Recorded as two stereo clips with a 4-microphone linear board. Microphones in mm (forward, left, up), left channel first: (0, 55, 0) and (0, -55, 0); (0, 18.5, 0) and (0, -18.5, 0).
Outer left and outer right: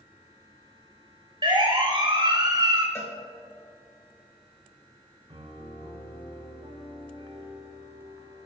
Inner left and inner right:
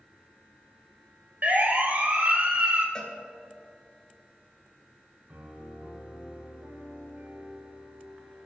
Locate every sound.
1.4 s a siren: 50° right (ahead or behind), 3 m; by 2.9 s 40° right (ahead or behind), 3.5 m
3.0 s a cowbell: 25° left (ahead or behind), 3.5 m
5.3 s a piano: 55° right (ahead or behind), 6.5 m